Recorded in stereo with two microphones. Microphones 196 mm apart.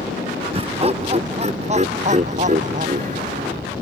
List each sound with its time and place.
0.5 s laughter: 30° right (ahead or behind); by 3.6 s 40° right (ahead or behind)